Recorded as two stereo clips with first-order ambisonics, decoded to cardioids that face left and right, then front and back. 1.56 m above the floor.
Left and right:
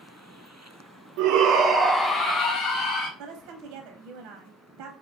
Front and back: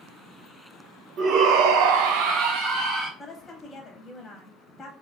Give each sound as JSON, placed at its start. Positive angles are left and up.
{"t": 1.2, "sound": "a shout", "azimuth_deg": -120, "distance_m": 0.7}
{"t": 3.2, "sound": "a woman speaking", "azimuth_deg": -75, "distance_m": 0.6}